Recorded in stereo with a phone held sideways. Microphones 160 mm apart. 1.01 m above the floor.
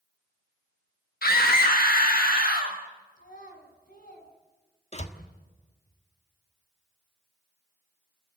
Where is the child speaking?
65° left (ahead or behind), 5.5 m.